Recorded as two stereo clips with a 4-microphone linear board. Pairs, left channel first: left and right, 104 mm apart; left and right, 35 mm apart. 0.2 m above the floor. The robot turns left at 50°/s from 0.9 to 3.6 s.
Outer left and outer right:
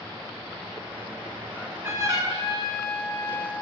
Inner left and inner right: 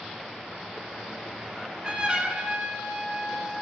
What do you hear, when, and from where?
1.6 s a trumpet: 15° right, 2 m; by 3.5 s 115° right, 2 m